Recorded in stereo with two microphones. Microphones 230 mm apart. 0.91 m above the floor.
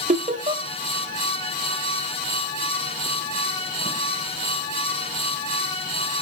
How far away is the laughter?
About 0.7 m.